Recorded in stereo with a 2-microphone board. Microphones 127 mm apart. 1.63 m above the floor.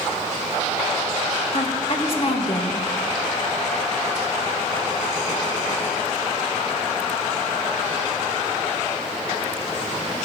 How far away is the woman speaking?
About 2 m.